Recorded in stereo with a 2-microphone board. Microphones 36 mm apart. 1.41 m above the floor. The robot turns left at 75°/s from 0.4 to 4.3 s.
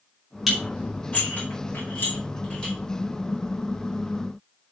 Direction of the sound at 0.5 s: 10° right (ahead or behind).